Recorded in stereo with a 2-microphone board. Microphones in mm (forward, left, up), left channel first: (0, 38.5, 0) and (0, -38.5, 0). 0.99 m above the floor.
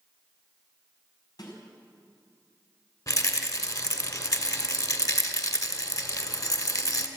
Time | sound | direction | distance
1.4 | a snare drum | 60° left (ahead or behind) | 5.5 m
3.1 | a rattle | 45° left (ahead or behind) | 2 m